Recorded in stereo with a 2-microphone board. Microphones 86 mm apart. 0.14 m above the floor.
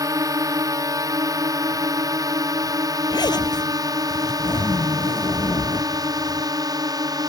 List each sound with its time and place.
0.0 s a drone: 40° right (ahead or behind); by 7.3 s 50° right (ahead or behind)
3.1 s a zipper: 55° left (ahead or behind)